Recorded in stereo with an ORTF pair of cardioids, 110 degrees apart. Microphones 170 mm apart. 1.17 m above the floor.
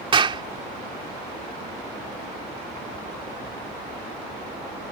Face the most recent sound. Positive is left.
turn(degrees=-30)